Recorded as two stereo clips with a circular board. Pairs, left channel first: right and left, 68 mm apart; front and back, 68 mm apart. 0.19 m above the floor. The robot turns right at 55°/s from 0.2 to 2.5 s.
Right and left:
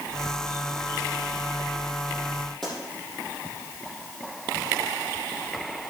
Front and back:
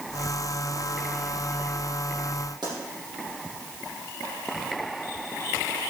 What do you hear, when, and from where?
2.6 s a pop: 175° right, 6 m